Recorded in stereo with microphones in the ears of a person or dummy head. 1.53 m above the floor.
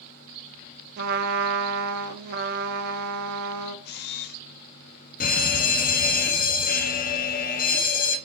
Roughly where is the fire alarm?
Left.